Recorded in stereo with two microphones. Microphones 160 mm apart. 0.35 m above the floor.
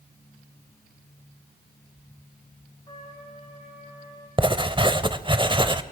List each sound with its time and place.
2.9 s a trumpet: 30° left (ahead or behind), 7.5 m
4.4 s writing: 30° right (ahead or behind), 0.8 m